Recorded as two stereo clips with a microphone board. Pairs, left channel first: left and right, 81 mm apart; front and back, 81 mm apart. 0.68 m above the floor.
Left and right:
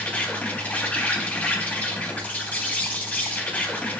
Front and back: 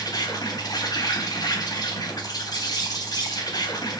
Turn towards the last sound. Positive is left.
turn(degrees=15)